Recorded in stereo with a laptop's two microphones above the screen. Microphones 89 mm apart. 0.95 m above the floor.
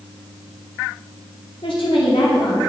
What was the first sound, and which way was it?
A woman speaking, 75° left (ahead or behind).